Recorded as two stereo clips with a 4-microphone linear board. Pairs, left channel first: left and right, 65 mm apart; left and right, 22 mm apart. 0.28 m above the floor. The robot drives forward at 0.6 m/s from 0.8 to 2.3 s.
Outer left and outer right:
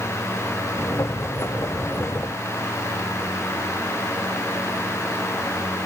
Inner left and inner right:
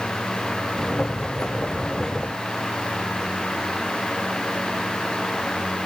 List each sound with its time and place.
Only background noise.